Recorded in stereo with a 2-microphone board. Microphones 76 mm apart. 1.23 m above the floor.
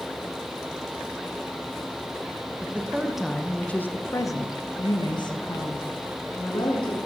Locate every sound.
2.6 s a woman speaking: 20° right (ahead or behind), 1.0 m; by 7.0 s 85° left, 1.9 m